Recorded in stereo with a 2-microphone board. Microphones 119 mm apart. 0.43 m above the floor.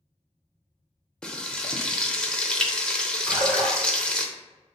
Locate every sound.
1.2 s frying: 5° left (ahead or behind), 0.5 m
3.3 s a splash: 10° right (ahead or behind), 1.6 m